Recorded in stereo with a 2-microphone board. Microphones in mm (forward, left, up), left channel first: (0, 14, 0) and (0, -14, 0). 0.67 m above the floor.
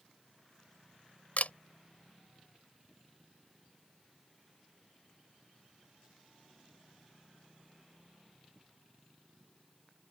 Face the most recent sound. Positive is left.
turn(degrees=65)  # may be behind; listen again after turning